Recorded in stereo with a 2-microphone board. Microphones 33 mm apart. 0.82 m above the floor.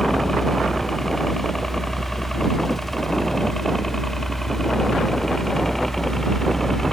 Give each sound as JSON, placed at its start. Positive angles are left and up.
{"t": 0.0, "sound": "a helicopter", "side_deg": 15}